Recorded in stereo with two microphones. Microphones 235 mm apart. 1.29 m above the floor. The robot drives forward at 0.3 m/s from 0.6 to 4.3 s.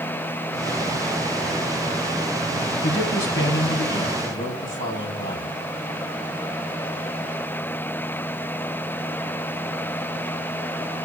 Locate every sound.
2.8 s a man speaking: 60° left (ahead or behind), 4 m; by 5.5 s 55° left (ahead or behind), 4.5 m